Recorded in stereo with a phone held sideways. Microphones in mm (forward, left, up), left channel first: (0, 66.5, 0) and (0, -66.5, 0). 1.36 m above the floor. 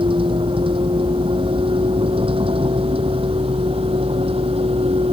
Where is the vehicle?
40° right (ahead or behind); by 5.1 s 45° right (ahead or behind).